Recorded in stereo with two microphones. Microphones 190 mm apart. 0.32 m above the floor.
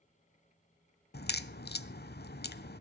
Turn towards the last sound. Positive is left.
turn(degrees=65)  # may be behind; listen again after turning